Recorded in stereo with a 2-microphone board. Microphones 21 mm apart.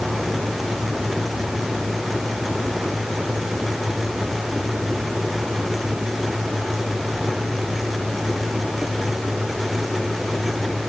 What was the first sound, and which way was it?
Only background noise.